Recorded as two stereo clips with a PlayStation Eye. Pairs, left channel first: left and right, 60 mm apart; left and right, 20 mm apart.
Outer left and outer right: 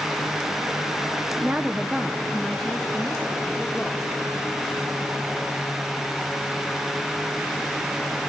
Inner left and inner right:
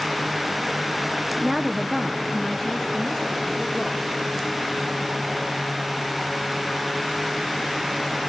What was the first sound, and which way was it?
A woman speaking, 30° right (ahead or behind).